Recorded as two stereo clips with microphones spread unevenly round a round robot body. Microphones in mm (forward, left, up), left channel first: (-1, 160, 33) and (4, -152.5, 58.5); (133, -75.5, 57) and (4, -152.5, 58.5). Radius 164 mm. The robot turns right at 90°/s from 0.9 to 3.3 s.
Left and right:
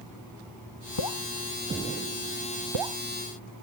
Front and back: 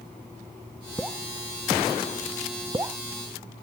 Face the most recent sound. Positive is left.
turn(degrees=-35)